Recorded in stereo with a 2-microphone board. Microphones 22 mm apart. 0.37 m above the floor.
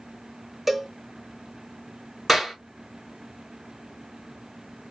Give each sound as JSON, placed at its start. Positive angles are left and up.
{"t": 0.7, "sound": "a cowbell", "side_deg": -15, "distance_m": 0.7}
{"t": 2.3, "sound": "a clap", "side_deg": -5, "distance_m": 3.5}